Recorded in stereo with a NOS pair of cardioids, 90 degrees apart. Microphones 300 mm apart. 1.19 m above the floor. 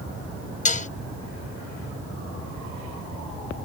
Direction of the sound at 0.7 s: 25° left.